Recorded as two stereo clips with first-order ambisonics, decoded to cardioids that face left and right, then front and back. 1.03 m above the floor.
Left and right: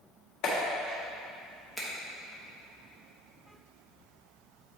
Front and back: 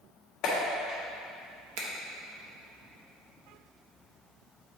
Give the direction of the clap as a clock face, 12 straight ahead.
10 o'clock.